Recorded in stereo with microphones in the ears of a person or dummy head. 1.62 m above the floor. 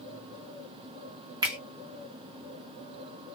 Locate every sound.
1.4 s a finger snap: 20° right (ahead or behind), 0.7 m